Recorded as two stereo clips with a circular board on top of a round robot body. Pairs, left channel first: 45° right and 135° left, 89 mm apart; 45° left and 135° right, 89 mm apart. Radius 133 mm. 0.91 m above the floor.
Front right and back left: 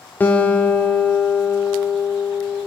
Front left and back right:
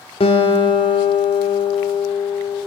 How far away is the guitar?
About 0.6 m.